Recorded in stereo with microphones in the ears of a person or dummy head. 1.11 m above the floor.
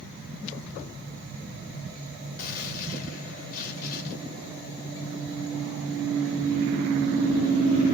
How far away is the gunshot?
About 1.6 m.